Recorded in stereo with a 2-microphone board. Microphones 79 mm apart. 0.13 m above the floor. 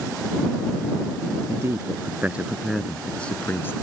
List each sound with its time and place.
1.5 s a man speaking: 40° right (ahead or behind); by 3.8 s 30° left (ahead or behind)